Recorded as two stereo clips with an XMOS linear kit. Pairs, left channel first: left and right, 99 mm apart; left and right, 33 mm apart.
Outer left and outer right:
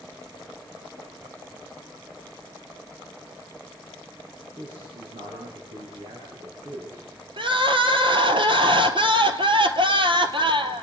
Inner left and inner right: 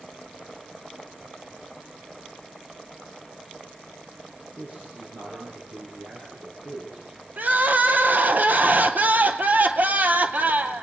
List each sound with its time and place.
4.6 s a man speaking: 65° right (ahead or behind), 7.5 m
7.4 s crying: 60° right (ahead or behind), 1.6 m